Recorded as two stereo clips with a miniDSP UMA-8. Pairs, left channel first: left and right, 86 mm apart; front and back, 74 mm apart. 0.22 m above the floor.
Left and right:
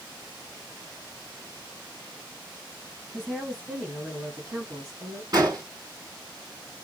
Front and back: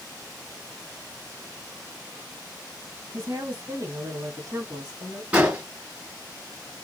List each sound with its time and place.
3.1 s a woman speaking: straight behind, 1.7 m; by 5.2 s 110° right, 1.7 m
5.3 s an explosion: 110° right, 2 m